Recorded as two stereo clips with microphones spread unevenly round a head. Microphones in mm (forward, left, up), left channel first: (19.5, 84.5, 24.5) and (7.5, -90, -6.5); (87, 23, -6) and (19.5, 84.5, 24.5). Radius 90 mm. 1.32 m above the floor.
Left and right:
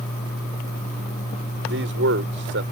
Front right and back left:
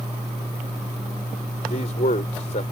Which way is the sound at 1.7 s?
70° right.